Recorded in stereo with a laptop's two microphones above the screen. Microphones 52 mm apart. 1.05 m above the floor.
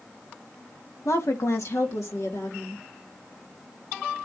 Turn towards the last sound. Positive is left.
turn(degrees=65)  # may be behind; listen again after turning